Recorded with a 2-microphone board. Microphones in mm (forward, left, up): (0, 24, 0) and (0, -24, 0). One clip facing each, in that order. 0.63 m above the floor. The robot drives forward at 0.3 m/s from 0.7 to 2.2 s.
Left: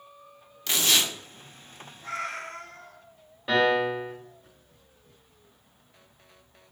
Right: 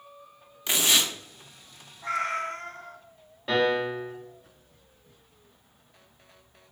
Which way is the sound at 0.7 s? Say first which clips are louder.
Even; 20° right (ahead or behind).